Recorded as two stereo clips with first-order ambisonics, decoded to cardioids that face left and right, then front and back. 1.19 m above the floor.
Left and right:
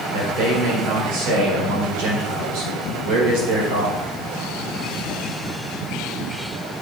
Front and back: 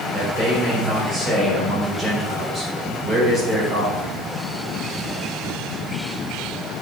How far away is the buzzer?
I don't hear a buzzer.